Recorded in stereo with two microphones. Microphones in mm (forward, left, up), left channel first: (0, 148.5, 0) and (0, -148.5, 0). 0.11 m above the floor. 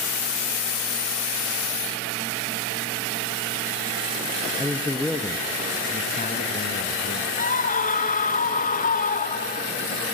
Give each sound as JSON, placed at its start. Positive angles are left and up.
{"t": 4.6, "sound": "a man speaking", "side_deg": -10, "distance_m": 1.8}
{"t": 7.4, "sound": "a scream", "side_deg": 25, "distance_m": 1.3}